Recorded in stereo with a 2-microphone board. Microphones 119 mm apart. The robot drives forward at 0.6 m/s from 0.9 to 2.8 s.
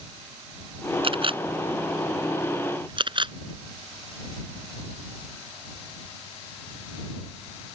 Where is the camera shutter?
50° right (ahead or behind); by 3.3 s 40° right (ahead or behind).